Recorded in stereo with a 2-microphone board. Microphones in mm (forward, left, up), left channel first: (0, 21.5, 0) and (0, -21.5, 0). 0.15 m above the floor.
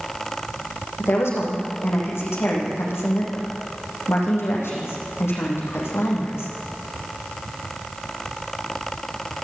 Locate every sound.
1.0 s a woman speaking: 80° left, 8.5 m